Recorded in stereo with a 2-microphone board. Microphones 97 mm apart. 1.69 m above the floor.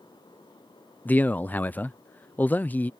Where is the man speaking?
15° left (ahead or behind).